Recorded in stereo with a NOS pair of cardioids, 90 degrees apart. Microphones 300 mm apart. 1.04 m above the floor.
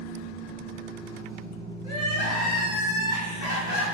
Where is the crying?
60° left, 1.5 m.